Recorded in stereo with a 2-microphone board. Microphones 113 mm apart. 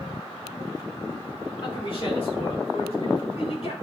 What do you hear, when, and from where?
1.6 s a man speaking: 40° left (ahead or behind), 2.5 m; by 3.7 s 65° left (ahead or behind), 5.5 m